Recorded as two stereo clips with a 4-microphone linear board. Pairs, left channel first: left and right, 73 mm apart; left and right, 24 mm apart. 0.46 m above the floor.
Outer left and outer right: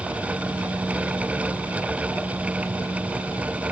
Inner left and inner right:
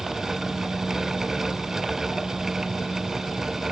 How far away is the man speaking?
I don't hear a man speaking.